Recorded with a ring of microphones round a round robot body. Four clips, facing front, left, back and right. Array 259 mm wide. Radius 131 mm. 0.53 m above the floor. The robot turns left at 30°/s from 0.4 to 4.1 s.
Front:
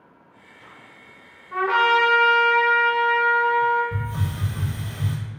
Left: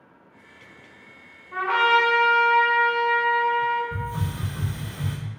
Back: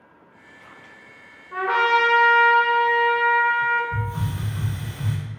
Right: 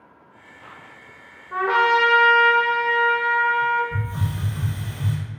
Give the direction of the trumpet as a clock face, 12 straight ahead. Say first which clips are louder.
Right 2 dB, front 1 dB; 3 o'clock.